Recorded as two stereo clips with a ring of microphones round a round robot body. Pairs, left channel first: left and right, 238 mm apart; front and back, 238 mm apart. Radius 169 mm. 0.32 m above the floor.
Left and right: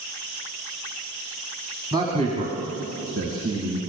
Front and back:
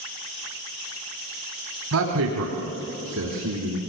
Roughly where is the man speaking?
Behind.